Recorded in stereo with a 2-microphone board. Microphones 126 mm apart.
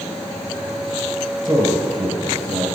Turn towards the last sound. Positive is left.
turn(degrees=-20)  # may be behind; listen again after turning